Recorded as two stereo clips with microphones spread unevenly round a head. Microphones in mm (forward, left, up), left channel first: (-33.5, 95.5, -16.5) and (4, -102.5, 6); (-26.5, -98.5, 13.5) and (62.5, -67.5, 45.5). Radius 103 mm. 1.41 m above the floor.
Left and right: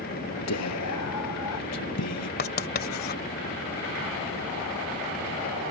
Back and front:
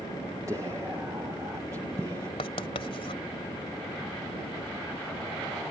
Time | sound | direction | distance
0.5 | whispering | 90° left | ?
2.4 | writing | 135° left | ?